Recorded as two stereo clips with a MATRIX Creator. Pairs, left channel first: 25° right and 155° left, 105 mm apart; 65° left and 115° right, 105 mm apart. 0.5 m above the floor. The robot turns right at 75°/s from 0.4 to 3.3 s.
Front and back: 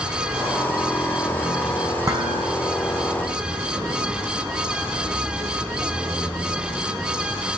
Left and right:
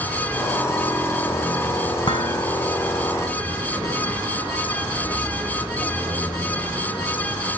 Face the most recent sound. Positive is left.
turn(degrees=-165)